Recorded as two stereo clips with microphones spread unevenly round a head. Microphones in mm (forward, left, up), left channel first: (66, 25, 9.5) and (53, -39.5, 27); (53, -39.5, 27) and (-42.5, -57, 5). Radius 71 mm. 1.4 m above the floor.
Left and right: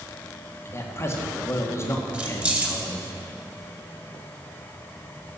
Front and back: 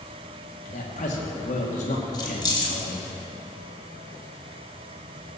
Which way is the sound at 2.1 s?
35° right.